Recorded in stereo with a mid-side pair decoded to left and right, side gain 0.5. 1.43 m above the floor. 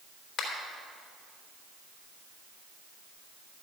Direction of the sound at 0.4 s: 45° left.